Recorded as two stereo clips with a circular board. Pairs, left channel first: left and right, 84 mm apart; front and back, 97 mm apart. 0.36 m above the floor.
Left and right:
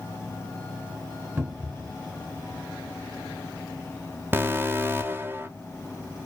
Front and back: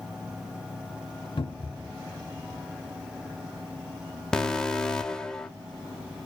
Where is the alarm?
75° right, 0.7 m.